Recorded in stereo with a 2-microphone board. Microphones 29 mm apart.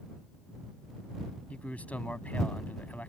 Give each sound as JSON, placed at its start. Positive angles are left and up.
{"t": 1.5, "sound": "a man speaking", "side_deg": 55}